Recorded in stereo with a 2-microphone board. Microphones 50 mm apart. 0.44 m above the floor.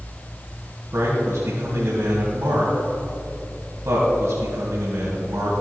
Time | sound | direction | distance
0.9 | a man speaking | 70° right (ahead or behind) | 2.5 m